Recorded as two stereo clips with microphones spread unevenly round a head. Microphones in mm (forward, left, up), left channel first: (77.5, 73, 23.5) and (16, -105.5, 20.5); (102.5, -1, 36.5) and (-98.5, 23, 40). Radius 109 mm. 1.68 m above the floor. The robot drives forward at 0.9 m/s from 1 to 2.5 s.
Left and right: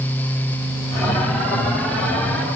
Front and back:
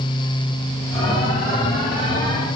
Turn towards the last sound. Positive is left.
No sound to turn to.